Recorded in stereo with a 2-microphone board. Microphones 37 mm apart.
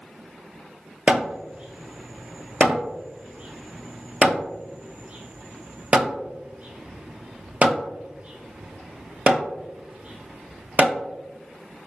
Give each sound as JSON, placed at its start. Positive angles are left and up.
{"t": 1.1, "sound": "hammering", "side_deg": -30, "distance_m": 0.5}